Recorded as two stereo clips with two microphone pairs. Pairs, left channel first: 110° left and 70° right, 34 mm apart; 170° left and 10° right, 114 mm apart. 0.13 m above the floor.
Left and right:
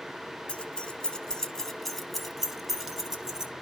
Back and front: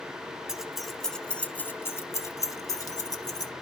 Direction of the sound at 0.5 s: 75° left.